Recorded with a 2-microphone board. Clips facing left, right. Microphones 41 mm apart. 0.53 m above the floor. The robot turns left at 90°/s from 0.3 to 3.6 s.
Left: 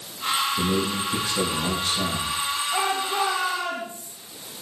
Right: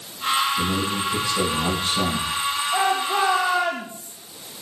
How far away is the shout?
About 3 m.